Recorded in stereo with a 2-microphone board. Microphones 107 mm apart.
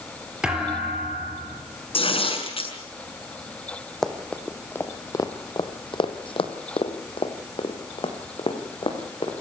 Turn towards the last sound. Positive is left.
turn(degrees=50)  # may be behind; listen again after turning